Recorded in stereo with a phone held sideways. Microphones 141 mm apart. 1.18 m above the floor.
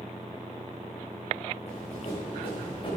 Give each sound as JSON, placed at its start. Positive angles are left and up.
{"t": 1.7, "sound": "running footsteps", "side_deg": 50, "distance_m": 5.5}